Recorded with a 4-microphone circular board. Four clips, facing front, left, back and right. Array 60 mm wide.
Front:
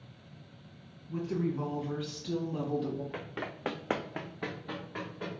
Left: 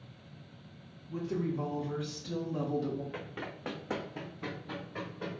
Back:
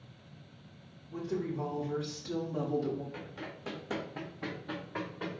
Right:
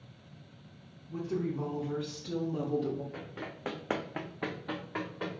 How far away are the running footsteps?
About 0.7 m.